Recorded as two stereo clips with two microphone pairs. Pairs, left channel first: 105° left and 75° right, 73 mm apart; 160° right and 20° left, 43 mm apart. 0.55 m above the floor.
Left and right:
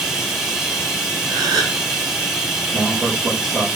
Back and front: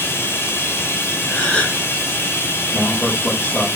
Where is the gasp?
95° right, 1.8 m.